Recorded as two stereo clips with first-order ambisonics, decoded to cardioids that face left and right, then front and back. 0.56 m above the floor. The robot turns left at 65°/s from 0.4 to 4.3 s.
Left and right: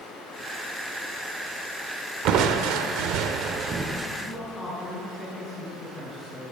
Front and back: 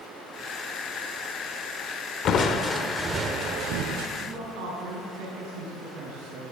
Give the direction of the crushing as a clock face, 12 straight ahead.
2 o'clock.